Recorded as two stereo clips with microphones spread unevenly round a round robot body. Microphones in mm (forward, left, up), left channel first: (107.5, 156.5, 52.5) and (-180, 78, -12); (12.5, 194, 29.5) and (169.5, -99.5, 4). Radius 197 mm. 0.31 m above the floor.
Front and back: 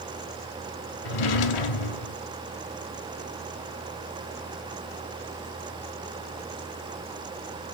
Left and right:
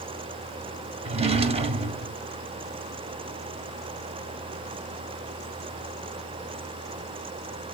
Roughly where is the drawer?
Ahead.